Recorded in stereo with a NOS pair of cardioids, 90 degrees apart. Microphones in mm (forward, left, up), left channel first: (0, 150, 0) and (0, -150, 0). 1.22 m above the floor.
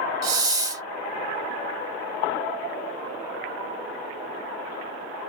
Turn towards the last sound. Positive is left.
turn(degrees=-10)